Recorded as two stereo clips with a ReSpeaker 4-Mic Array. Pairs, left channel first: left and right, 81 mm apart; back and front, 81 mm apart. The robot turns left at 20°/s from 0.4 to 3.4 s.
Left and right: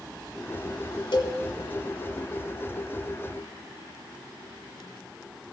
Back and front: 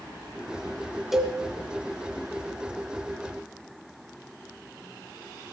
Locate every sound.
1.1 s a cowbell: 90° left, 1.6 m; by 1.4 s 85° left, 1.6 m